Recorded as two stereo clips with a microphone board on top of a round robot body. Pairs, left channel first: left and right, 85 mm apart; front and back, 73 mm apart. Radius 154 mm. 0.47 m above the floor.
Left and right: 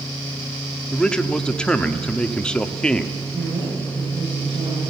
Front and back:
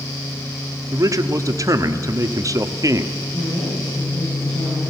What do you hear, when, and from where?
0.9 s a man speaking: 165° left, 1.4 m
3.3 s a woman speaking: 75° right, 7.5 m